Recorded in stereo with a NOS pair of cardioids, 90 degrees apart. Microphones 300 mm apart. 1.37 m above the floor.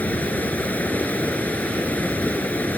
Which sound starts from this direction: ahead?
Running water, at 0.0 s.